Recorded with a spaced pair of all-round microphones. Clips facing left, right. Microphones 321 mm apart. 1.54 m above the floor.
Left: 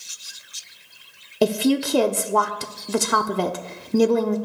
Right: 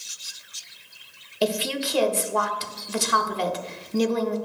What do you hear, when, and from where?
1.4 s a woman speaking: 60° left (ahead or behind), 0.5 m